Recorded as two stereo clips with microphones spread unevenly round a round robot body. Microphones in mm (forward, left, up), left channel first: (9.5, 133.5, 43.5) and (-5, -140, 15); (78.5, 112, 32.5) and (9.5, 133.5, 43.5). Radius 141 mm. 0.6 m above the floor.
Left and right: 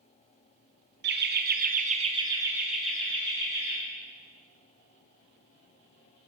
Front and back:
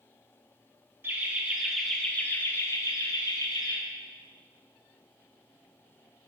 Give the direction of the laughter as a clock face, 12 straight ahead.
4 o'clock.